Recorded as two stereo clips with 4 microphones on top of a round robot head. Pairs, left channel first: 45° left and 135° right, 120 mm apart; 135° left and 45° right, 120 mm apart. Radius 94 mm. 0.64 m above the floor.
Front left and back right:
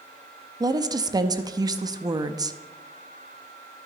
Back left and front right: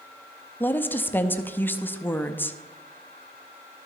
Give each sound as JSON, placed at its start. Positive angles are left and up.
{"t": 0.6, "sound": "a woman speaking", "azimuth_deg": -160, "distance_m": 0.6}